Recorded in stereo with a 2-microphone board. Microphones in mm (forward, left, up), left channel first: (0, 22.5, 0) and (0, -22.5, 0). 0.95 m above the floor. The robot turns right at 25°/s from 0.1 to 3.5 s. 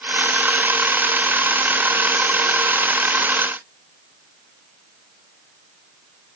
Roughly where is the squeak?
No squeak in this recording.